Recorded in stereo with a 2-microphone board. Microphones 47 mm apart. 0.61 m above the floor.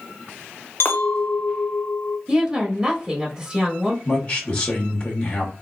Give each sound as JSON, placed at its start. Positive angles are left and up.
{"t": 0.8, "sound": "a clink", "side_deg": 55, "distance_m": 0.7}
{"t": 2.3, "sound": "a woman speaking", "side_deg": -20, "distance_m": 0.9}
{"t": 4.0, "sound": "a man speaking", "side_deg": 20, "distance_m": 1.0}